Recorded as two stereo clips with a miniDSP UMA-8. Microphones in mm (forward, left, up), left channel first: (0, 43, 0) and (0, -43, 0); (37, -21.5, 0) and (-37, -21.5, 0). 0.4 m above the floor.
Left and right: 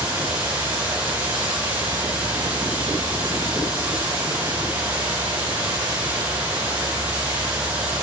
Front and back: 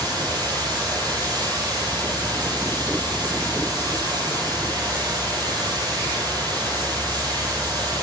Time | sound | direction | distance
0.0 | running water | 165° right | 8.5 m